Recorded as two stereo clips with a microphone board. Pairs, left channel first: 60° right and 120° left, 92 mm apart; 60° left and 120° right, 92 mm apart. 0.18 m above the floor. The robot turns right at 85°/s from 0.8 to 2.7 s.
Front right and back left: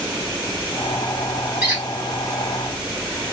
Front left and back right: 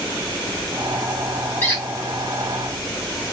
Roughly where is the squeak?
Left.